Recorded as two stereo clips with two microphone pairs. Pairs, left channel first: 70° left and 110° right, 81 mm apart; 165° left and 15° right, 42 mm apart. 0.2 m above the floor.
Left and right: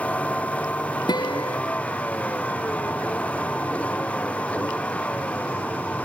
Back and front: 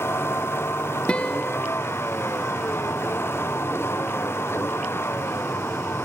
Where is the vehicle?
145° left.